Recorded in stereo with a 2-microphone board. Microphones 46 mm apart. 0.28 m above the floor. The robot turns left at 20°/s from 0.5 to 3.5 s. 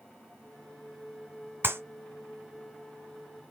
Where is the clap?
55° right (ahead or behind), 1.7 m.